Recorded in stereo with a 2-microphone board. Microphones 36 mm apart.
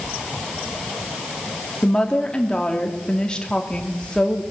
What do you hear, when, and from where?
1.8 s a woman speaking: 20° left (ahead or behind), 2.5 m